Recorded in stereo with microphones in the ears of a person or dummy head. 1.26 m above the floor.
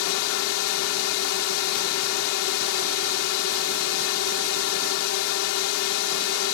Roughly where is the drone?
Left.